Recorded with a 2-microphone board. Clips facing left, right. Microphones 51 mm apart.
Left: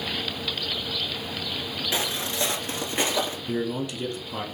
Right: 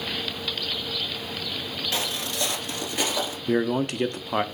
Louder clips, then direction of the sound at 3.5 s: Right 5 dB; 55° right (ahead or behind).